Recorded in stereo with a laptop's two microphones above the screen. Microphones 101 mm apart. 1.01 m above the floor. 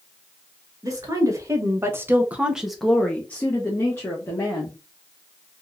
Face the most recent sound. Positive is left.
turn(degrees=30)  # may be behind; listen again after turning